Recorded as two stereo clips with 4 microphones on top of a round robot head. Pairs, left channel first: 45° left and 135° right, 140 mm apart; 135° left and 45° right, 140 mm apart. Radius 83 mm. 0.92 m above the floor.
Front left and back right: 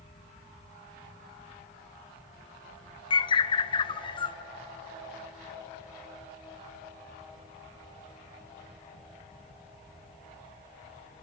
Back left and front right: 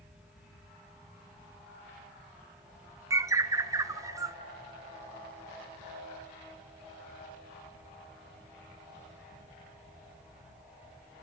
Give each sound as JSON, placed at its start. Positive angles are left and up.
{"t": 3.1, "sound": "a bird", "azimuth_deg": 10, "distance_m": 0.6}